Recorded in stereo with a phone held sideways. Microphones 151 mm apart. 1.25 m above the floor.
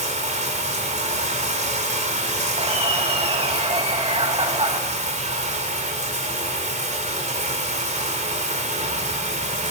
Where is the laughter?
40° right (ahead or behind), 2.0 m.